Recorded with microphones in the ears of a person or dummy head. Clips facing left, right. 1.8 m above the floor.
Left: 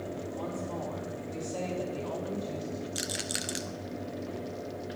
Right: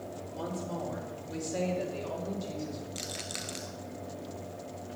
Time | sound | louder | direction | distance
0.3 | a woman speaking | right 3 dB | 20° right (ahead or behind) | 3 m
3.0 | a rattle | left 4 dB | 15° left (ahead or behind) | 0.5 m